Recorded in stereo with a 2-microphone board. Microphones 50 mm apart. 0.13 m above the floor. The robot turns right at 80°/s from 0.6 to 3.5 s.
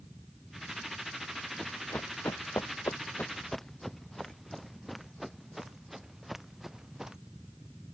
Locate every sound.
1.6 s running footsteps: 15° left (ahead or behind); by 7.2 s 10° right (ahead or behind)